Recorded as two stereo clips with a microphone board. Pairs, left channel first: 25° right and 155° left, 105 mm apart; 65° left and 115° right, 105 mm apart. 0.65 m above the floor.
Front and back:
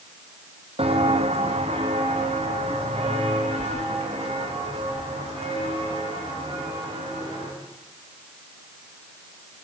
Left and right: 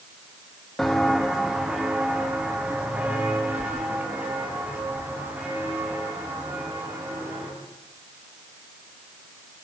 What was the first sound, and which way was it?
Footsteps, 155° left.